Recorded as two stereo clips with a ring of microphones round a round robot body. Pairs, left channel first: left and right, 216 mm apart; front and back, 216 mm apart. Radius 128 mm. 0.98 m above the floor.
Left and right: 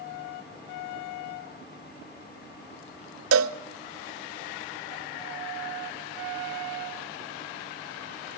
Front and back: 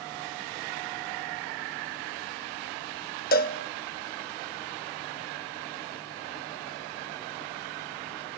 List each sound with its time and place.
3.3 s a cowbell: 55° right, 0.7 m